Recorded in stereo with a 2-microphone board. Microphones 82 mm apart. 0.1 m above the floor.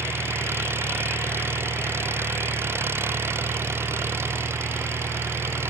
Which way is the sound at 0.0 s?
30° right (ahead or behind).